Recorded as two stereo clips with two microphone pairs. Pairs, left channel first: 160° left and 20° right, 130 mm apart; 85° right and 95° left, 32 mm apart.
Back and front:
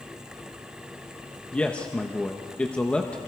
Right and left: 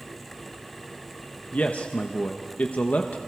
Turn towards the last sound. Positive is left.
turn(degrees=-120)